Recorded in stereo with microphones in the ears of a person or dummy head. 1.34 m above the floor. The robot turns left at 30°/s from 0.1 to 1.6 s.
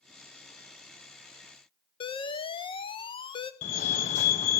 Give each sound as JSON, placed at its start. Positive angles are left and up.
{"t": 2.0, "sound": "an alarm", "side_deg": 30, "distance_m": 0.7}
{"t": 3.6, "sound": "a fire alarm", "side_deg": 40, "distance_m": 1.3}